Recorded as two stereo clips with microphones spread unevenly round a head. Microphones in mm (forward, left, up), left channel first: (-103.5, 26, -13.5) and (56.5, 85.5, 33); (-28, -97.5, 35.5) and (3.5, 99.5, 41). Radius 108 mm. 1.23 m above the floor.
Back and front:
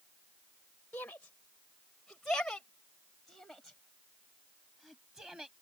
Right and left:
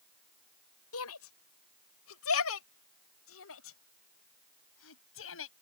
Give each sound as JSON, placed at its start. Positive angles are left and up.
{"t": 0.9, "sound": "a shout", "azimuth_deg": -75}